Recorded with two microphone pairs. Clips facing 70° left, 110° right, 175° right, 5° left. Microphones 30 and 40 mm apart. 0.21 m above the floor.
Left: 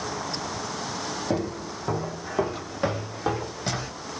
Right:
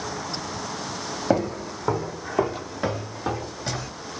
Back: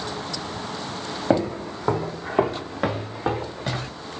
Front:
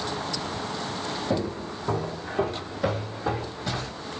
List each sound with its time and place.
1.3 s footsteps: 155° right, 1.1 m; by 3.9 s 140° left, 1.7 m